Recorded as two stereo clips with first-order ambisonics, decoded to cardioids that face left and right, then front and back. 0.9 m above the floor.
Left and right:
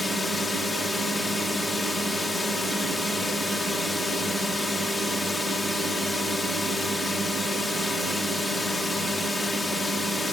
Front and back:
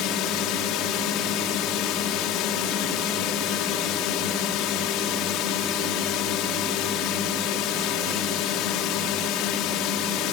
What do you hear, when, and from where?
0.0 s a drone: 10° left